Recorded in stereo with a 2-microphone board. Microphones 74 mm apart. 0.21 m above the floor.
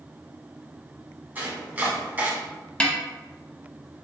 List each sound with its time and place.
1.4 s chopping: 25° right (ahead or behind), 1.3 m
2.8 s a snare drum: 15° left (ahead or behind), 0.7 m